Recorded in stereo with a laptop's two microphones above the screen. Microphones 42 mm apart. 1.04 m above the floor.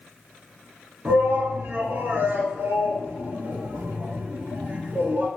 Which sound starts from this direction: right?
A shout, at 1.1 s.